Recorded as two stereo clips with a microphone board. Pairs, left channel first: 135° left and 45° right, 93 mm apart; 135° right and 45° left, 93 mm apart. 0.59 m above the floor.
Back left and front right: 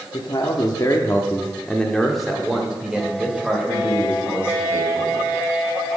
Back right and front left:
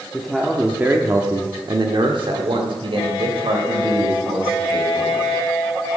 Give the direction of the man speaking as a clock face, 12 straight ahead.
7 o'clock.